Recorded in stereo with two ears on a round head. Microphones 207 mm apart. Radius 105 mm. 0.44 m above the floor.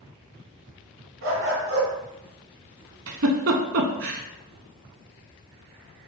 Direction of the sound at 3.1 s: 60° right (ahead or behind).